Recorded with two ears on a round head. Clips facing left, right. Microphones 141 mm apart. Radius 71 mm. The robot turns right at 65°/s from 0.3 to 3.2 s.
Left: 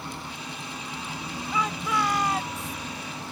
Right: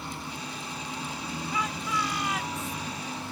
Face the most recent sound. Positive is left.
turn(degrees=-155)